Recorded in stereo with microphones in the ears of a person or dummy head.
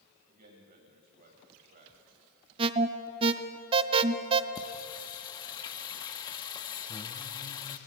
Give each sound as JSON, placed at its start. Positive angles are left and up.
{"t": 0.3, "sound": "a man speaking", "side_deg": -45, "distance_m": 7.0}
{"t": 2.6, "sound": "an alarm", "side_deg": -35, "distance_m": 1.1}
{"t": 4.5, "sound": "singing", "side_deg": 25, "distance_m": 1.4}